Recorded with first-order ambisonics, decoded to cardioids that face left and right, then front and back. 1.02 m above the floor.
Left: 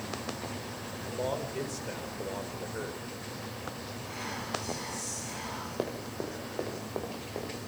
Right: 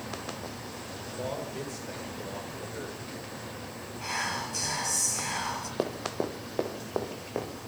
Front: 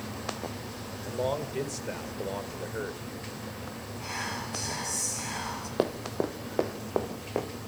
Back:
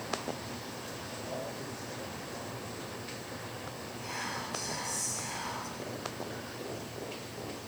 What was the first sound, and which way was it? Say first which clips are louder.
A man speaking: left 2 dB, front 11 dB; 10° left.